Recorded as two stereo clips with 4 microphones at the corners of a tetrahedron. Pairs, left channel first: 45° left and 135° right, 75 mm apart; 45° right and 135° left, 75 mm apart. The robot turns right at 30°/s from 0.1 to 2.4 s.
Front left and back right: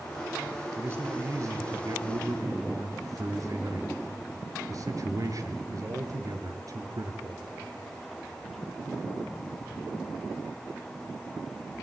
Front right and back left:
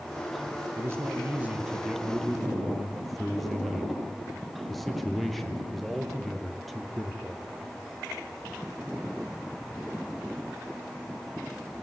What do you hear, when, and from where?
0.8 s a man speaking: straight behind, 2.5 m; by 7.5 s 135° right, 2.5 m